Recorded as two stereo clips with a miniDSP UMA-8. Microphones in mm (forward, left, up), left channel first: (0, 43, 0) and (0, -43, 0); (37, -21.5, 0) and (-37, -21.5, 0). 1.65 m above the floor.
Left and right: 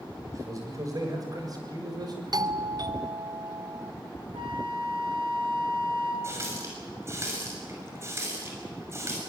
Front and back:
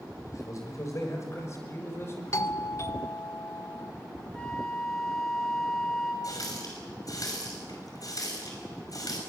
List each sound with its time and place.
0.3 s a man speaking: 40° right, 7 m; by 2.8 s 60° right, 5.5 m
2.3 s a doorbell: 50° right, 0.8 m
4.3 s a flute: 80° right, 5.5 m
6.2 s a running tap: 35° right, 6 m